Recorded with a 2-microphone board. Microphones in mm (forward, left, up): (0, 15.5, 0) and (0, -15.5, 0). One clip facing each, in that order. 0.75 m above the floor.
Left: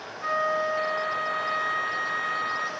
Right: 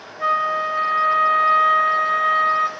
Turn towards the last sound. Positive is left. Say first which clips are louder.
# right 6 dB
turn(degrees=-50)  # may be behind; listen again after turning